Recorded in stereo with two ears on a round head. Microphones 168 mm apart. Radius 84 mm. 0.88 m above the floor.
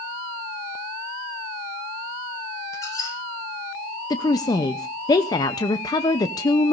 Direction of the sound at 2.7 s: 20° left (ahead or behind).